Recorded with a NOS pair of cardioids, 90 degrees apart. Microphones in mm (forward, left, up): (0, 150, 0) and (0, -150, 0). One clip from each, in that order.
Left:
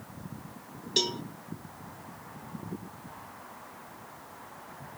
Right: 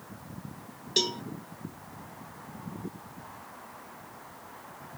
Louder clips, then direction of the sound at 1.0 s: Right 1 dB; straight ahead.